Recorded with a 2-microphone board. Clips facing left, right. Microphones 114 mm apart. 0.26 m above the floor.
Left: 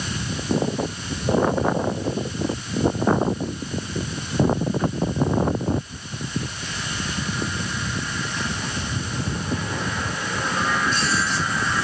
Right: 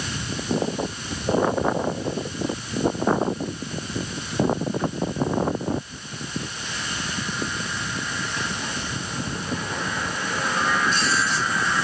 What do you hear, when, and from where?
Only background noise.